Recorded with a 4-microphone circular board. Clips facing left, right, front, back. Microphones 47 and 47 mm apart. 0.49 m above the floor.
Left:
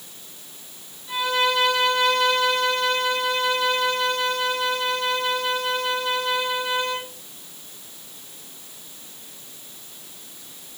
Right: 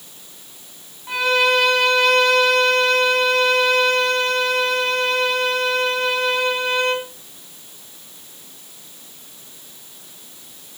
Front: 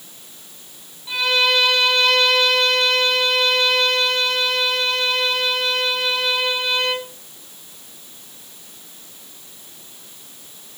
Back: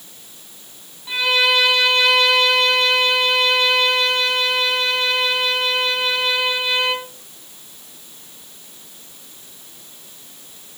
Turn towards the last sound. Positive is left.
turn(degrees=-100)